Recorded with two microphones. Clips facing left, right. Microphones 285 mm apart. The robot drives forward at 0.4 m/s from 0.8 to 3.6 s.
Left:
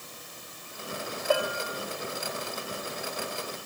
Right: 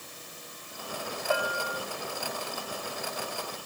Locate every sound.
1.3 s a bell: 40° left (ahead or behind), 0.8 m; by 1.8 s 35° left (ahead or behind), 0.9 m